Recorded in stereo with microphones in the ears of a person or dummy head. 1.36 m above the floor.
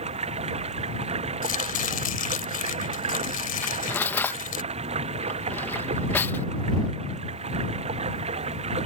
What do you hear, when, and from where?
0.0 s running water: 35° right (ahead or behind)
1.4 s chopping: 45° left (ahead or behind)
3.6 s cutlery clinking: 10° left (ahead or behind)